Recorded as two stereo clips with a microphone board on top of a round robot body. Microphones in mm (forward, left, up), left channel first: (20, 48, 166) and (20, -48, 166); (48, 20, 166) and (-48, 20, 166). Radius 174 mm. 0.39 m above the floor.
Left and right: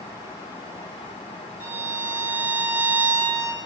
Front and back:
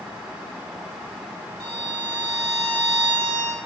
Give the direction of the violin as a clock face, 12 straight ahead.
6 o'clock.